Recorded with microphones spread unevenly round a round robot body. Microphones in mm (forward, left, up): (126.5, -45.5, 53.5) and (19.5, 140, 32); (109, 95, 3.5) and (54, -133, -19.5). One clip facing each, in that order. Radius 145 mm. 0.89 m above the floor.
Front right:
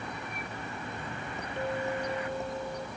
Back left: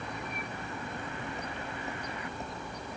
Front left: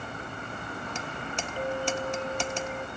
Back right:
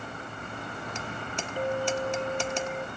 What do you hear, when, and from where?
1.6 s a clink: 25° right